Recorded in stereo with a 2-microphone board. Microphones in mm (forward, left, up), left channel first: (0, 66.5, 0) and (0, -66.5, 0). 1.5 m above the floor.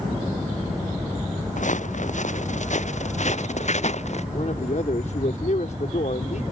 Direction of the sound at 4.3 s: 60° left (ahead or behind).